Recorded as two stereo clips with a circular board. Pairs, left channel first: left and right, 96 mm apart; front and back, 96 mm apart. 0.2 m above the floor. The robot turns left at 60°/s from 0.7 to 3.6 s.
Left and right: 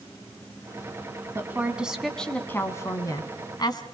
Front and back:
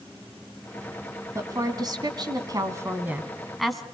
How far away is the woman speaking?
About 2 m.